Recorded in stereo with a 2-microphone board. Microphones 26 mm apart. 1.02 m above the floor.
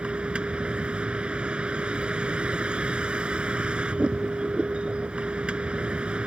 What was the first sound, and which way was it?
A vehicle, 40° right (ahead or behind).